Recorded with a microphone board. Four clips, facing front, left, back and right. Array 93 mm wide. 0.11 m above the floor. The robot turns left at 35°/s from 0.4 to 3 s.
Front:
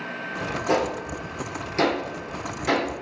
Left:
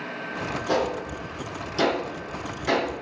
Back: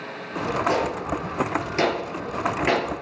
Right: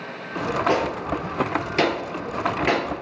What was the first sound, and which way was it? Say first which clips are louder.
A gunshot: even, front 4 dB; 60° right.